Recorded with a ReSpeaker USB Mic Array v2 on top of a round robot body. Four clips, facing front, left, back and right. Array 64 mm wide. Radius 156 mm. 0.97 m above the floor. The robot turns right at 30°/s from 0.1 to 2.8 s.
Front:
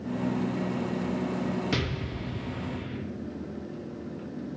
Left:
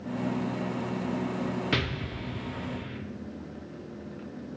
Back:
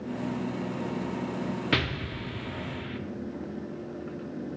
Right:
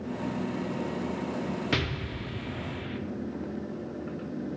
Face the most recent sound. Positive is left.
turn(degrees=-155)